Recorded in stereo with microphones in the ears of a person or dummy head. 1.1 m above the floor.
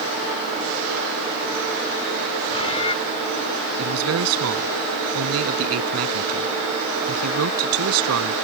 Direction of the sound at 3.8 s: 85° right.